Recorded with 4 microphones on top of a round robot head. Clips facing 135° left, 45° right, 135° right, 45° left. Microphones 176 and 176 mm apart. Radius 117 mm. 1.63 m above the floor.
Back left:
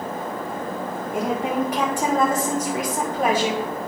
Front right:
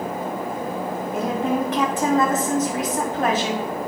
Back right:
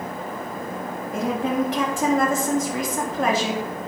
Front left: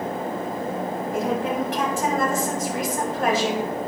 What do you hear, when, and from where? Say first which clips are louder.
1.1 s a woman speaking: even, back right 2 dB; 145° right, 3 m